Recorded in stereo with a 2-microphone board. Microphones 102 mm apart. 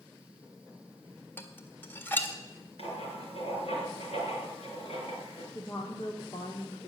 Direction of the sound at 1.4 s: 20° left (ahead or behind).